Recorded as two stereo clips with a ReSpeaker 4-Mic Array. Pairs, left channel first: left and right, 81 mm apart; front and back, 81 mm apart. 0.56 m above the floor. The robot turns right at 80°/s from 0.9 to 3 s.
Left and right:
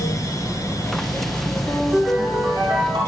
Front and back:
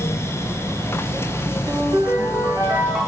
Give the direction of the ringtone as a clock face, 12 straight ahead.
7 o'clock.